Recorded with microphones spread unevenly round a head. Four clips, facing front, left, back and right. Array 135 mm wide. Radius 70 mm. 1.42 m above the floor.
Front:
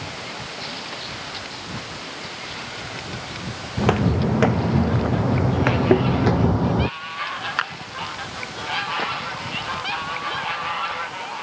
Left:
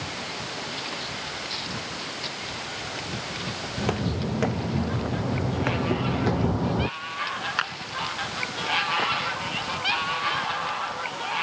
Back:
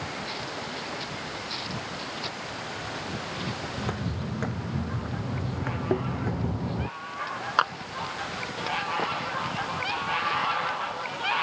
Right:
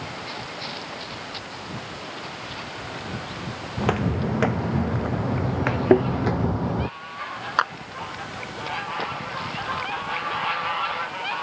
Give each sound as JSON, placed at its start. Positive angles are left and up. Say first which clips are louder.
{"t": 3.8, "sound": "footsteps", "louder": "right 4 dB, front 12 dB", "azimuth_deg": 0}
{"t": 5.9, "sound": "a thud", "louder": "right 10 dB, front 9 dB", "azimuth_deg": -55}
{"t": 7.6, "sound": "a clap", "louder": "right 9 dB, back 4 dB", "azimuth_deg": -130}